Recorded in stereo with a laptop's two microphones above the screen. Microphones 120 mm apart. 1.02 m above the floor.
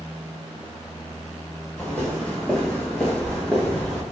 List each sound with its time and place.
1.8 s footsteps: 10° left (ahead or behind), 1.4 m; by 4.0 s 5° left (ahead or behind), 0.9 m